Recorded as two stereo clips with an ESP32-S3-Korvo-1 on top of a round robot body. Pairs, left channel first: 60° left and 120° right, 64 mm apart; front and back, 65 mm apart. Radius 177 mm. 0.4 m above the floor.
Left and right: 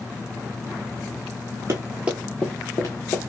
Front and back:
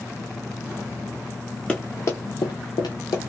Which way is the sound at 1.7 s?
75° right.